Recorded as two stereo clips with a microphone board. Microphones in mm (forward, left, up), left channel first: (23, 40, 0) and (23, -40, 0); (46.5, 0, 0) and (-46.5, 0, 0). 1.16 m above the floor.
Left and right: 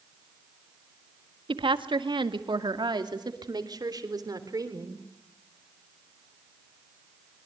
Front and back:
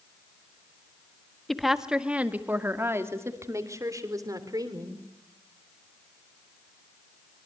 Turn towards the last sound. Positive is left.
turn(degrees=-135)